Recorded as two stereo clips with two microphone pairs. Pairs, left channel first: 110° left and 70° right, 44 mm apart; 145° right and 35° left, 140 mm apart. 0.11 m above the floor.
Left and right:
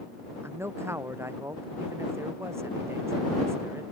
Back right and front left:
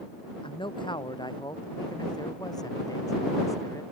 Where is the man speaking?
90° right; by 3.8 s 80° right.